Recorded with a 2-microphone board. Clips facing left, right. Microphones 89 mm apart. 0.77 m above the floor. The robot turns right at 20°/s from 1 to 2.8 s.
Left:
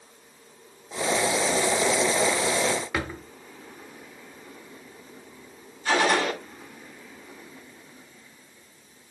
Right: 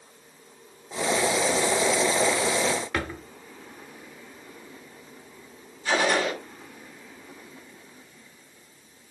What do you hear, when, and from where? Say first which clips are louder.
2.9 s a drawer: even; 5° left (ahead or behind), 0.7 m
5.8 s a gunshot: left 1 dB; 40° left (ahead or behind), 7 m